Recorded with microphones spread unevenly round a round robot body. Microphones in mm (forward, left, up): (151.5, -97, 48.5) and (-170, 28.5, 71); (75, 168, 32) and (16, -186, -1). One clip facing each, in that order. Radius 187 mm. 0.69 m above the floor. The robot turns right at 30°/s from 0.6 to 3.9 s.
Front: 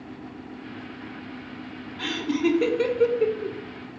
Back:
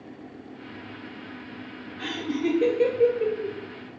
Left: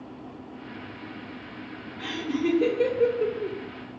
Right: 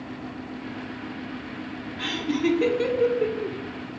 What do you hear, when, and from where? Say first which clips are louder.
2.0 s laughter: front 3 dB, right 2 dB; 75° right, 0.6 m; by 3.6 s 30° right, 0.6 m